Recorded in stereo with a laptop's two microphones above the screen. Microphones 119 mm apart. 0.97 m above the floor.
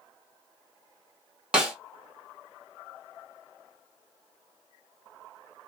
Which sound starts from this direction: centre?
A snare drum, at 1.5 s.